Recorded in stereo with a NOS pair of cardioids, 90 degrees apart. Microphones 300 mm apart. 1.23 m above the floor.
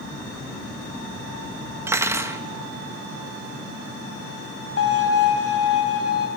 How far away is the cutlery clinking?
About 0.8 m.